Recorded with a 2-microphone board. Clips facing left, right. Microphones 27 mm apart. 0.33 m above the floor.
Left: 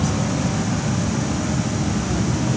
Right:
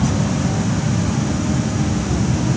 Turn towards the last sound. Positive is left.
No sound to turn to.